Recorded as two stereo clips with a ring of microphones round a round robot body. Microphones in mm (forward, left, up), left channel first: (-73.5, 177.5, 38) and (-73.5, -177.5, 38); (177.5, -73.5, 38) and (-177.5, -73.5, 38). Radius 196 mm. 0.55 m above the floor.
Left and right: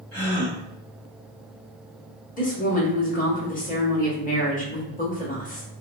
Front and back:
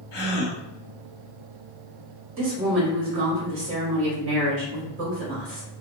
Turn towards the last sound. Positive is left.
turn(degrees=145)